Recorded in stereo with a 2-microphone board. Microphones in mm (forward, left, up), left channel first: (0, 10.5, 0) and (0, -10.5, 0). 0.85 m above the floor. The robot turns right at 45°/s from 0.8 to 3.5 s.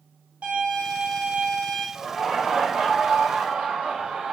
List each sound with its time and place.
0.4 s a violin: 80° right, 1.1 m; by 1.9 s 35° right, 1.1 m
1.9 s laughter: 175° right, 1.0 m; by 4.3 s 105° right, 1.0 m